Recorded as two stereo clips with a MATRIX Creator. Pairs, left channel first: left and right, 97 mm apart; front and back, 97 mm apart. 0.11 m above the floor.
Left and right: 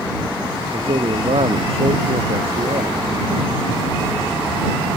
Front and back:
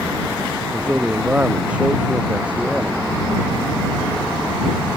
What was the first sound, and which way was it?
A man speaking, 100° right.